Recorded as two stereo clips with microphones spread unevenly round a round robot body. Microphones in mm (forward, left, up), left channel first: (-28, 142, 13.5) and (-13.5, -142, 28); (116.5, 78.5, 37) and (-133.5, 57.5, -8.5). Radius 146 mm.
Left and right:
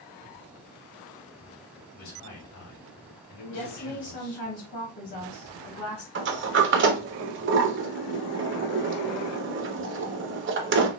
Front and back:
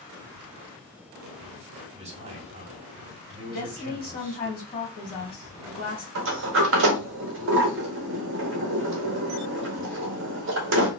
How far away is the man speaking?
About 2.5 m.